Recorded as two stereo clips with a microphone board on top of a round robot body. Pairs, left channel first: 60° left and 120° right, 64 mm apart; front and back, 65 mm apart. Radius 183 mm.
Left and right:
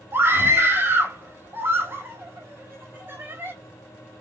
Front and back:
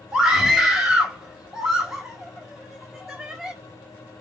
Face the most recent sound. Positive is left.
turn(degrees=-110)